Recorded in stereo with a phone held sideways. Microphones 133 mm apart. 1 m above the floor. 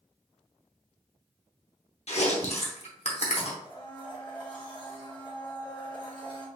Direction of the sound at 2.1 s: 55° left (ahead or behind).